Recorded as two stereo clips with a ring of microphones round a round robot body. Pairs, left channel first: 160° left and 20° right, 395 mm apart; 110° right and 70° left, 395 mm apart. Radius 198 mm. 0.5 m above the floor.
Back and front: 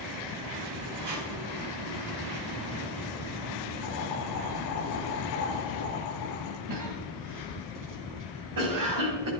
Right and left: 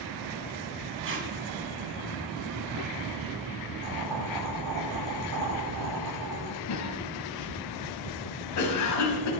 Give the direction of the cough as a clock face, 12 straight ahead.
2 o'clock.